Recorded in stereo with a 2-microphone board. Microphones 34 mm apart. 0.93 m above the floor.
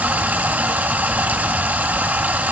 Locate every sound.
0.0 s running water: 50° right (ahead or behind), 1.0 m